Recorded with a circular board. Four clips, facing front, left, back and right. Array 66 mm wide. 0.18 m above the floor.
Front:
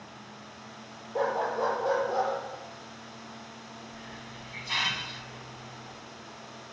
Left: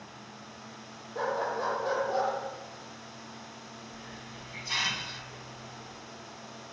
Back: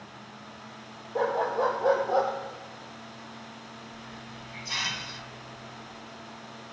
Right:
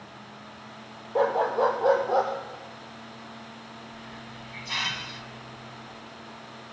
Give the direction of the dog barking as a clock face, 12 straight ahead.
3 o'clock.